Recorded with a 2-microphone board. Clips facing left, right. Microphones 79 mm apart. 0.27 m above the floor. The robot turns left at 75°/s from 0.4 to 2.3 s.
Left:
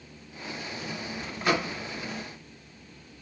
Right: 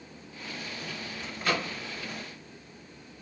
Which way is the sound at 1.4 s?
20° left (ahead or behind).